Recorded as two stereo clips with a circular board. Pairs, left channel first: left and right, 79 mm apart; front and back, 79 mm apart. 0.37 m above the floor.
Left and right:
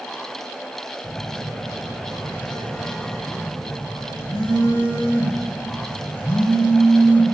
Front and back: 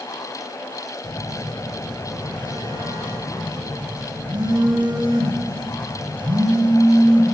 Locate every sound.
1.0 s a phone buzzing: 165° left, 1.6 m